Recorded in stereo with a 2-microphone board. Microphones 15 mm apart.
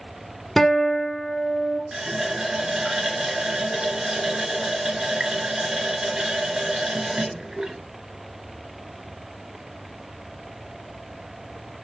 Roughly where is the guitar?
Left.